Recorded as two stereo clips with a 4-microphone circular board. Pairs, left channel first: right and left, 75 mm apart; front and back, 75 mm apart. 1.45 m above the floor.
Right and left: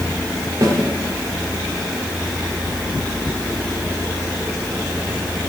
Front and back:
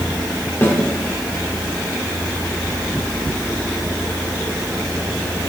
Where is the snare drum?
60° left, 1.8 m.